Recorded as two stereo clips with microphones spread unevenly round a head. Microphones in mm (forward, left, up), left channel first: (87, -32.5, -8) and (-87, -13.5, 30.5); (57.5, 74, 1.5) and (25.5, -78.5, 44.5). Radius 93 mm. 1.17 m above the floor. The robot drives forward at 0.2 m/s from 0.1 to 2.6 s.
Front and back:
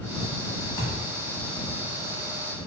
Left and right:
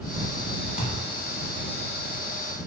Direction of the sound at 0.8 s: 75° left.